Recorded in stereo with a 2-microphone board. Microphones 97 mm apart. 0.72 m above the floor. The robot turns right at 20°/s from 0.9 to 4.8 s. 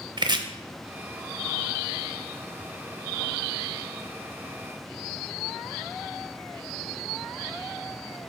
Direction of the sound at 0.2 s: 50° right (ahead or behind).